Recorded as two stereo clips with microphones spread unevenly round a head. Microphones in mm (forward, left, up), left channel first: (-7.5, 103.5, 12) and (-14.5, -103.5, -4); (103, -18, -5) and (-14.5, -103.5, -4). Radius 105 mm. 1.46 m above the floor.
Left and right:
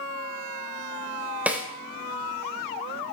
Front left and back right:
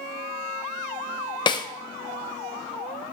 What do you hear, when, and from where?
1.5 s a snare drum: 5° right, 0.7 m